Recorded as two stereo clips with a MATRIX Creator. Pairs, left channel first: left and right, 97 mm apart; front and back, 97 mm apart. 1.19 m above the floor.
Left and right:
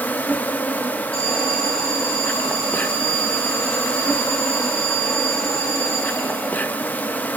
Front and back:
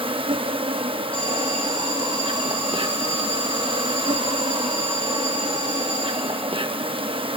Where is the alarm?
75° left, 8 m.